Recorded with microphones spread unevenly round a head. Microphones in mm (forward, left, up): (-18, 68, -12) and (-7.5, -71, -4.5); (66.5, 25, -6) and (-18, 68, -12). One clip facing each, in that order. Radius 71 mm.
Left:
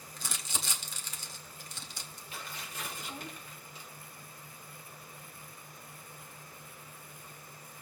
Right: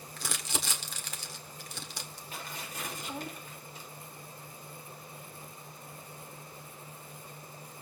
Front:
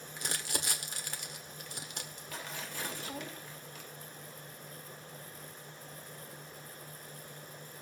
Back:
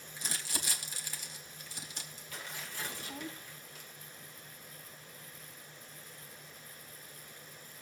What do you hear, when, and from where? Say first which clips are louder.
0.2 s crumpling: right 5 dB, front 3 dB; 65° right, 1.7 m
2.3 s tearing paper: right 2 dB, front 2 dB; 30° right, 3 m